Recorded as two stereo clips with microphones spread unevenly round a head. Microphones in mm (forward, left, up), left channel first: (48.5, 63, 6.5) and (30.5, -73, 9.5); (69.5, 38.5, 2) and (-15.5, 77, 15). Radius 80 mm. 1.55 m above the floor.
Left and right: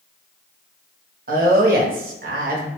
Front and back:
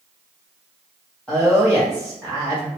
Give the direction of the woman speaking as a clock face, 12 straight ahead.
4 o'clock.